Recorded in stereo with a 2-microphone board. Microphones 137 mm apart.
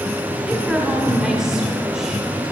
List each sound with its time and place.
0.4 s a woman speaking: 5° right (ahead or behind), 1.0 m